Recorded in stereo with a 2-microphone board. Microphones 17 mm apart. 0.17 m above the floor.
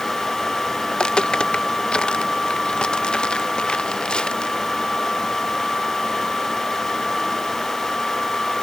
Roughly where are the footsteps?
Left.